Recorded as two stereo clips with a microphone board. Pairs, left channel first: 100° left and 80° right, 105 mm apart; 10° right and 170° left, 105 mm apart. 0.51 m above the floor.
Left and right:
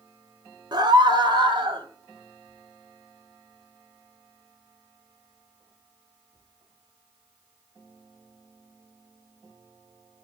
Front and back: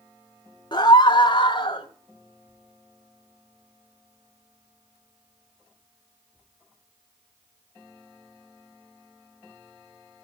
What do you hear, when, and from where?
0.7 s a scream: 45° right, 1.9 m